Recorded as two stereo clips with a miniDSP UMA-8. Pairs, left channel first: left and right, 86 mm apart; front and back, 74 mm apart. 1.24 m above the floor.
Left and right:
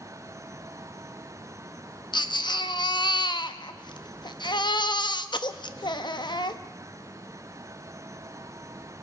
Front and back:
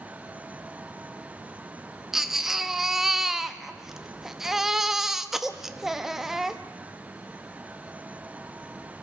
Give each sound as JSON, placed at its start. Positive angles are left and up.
{"t": 2.1, "sound": "a baby crying", "azimuth_deg": 95, "distance_m": 0.9}